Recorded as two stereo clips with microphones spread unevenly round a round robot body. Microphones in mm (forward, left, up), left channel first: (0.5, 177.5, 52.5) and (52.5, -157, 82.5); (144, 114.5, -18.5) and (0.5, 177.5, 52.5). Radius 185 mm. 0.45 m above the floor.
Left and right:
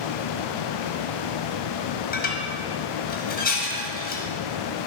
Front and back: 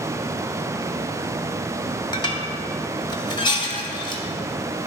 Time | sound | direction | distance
2.1 | dishes clattering | 35° left | 1.7 m